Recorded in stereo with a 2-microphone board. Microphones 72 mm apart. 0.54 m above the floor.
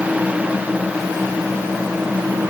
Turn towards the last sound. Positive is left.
No sound to turn to.